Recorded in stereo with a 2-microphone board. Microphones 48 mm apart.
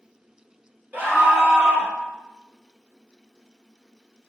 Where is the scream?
40° right (ahead or behind), 1.7 m; by 1.9 s 50° right (ahead or behind), 1.7 m.